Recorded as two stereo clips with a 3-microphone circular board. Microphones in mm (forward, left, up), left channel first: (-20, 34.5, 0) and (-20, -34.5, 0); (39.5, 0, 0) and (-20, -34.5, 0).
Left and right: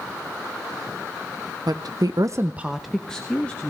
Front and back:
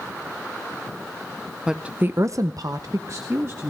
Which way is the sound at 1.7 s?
70° right.